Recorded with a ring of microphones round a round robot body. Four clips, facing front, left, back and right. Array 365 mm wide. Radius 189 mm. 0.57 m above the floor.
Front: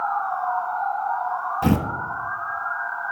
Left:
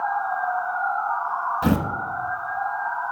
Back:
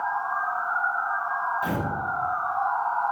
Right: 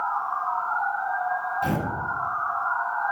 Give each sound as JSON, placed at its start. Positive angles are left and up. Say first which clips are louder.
{"t": 1.6, "sound": "tearing paper", "louder": "left 7 dB, front 6 dB", "azimuth_deg": 30, "distance_m": 1.1}